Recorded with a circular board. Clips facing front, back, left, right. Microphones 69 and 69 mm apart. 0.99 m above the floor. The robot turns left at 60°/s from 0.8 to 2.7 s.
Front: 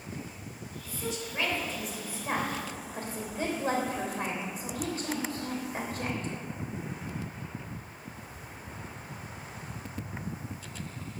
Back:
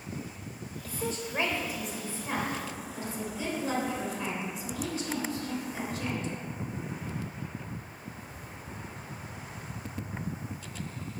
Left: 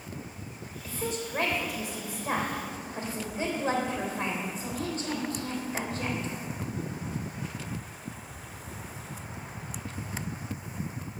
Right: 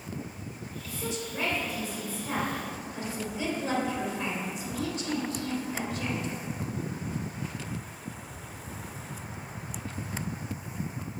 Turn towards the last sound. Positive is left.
turn(degrees=40)